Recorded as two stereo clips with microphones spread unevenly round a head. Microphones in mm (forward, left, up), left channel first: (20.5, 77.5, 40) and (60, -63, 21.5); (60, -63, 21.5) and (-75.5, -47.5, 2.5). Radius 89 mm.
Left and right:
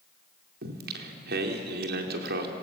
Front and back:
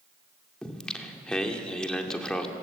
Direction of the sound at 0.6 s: 90° right.